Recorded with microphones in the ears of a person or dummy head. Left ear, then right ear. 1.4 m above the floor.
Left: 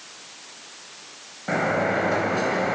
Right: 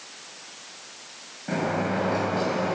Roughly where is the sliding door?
Left.